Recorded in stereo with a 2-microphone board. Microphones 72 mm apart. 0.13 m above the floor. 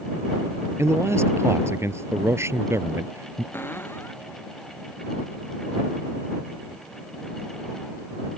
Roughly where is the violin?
I don't hear a violin.